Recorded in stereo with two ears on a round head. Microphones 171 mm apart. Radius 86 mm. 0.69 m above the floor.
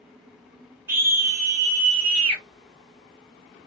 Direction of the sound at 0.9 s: 15° right (ahead or behind).